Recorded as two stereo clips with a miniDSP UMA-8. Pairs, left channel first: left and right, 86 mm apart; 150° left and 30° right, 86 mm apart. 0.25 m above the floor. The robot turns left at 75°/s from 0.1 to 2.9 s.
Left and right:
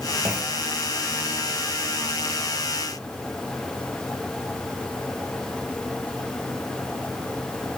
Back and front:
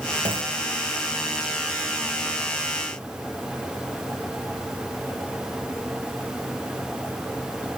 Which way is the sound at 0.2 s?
10° right.